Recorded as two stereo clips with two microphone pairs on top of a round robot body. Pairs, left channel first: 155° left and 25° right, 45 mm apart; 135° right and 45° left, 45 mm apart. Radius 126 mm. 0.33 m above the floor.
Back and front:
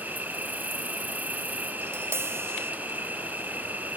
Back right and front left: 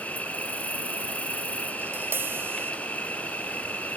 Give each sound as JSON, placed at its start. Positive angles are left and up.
{"t": 0.0, "sound": "an insect", "azimuth_deg": -75}
{"t": 1.8, "sound": "tapping", "azimuth_deg": 5}